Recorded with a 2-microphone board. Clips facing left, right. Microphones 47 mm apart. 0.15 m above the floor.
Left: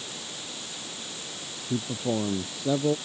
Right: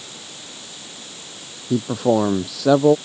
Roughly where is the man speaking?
Right.